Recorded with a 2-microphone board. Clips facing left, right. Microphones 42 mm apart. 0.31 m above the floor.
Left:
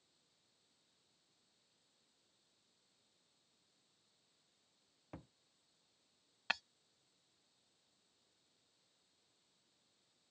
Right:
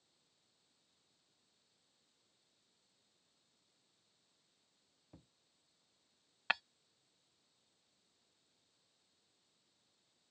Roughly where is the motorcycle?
I don't hear a motorcycle.